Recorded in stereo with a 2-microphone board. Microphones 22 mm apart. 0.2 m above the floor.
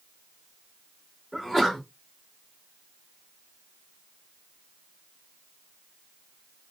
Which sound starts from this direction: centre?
A sneeze, at 1.3 s.